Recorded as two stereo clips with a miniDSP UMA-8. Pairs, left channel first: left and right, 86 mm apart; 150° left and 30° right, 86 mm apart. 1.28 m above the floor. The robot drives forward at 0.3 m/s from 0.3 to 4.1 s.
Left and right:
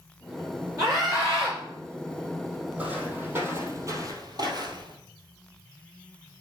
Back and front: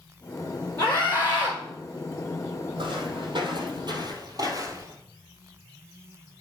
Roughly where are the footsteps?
Ahead.